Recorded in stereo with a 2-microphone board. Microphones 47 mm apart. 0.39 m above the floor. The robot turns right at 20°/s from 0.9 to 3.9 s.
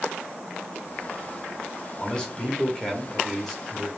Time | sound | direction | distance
2.0 | a man speaking | 15° left (ahead or behind) | 0.8 m